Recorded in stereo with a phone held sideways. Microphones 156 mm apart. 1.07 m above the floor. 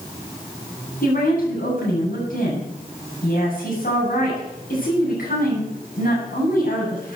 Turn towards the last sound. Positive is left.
turn(degrees=65)  # may be behind; listen again after turning